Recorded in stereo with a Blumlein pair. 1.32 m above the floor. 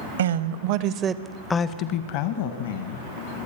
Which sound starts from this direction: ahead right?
A woman speaking, at 0.2 s.